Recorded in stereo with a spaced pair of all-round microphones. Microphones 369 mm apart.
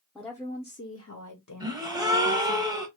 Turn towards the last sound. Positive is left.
turn(degrees=-10)  # may be behind; listen again after turning